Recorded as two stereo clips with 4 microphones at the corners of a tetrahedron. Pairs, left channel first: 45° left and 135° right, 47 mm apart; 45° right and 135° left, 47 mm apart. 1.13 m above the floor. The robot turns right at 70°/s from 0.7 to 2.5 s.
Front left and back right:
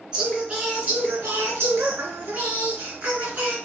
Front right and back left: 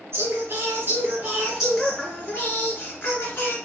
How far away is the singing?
About 3 m.